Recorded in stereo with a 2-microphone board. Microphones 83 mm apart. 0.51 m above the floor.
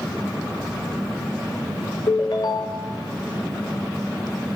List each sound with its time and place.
2.1 s a ringtone: 60° left (ahead or behind), 1.3 m